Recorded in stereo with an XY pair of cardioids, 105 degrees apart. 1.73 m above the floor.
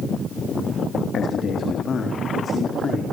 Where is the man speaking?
60° left, 2.5 m; by 3.0 s 45° left, 4.5 m.